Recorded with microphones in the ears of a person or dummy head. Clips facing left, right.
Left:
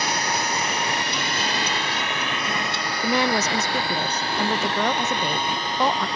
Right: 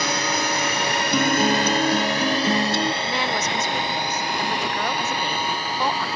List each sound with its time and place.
0.0 s a drone: 65° right (ahead or behind); by 6.2 s centre (ahead or behind)
1.1 s a guitar: 50° right (ahead or behind)
3.0 s a woman speaking: 55° left (ahead or behind)